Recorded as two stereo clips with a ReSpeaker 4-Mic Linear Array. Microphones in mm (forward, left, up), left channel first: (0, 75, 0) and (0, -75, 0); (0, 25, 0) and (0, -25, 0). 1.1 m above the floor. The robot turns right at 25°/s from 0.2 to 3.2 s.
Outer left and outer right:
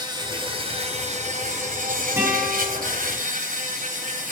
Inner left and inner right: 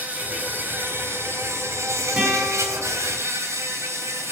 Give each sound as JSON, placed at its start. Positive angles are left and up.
{"t": 0.0, "sound": "an insect", "azimuth_deg": -150, "distance_m": 3.0}
{"t": 2.2, "sound": "a guitar", "side_deg": -20, "distance_m": 8.5}